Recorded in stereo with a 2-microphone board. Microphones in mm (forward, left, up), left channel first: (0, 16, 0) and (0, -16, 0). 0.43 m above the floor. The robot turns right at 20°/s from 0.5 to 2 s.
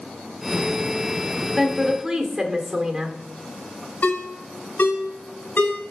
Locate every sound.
1.6 s a woman speaking: 20° right (ahead or behind), 0.9 m; by 3.2 s 25° right (ahead or behind), 0.9 m
4.0 s a ringtone: 75° left (ahead or behind), 2.0 m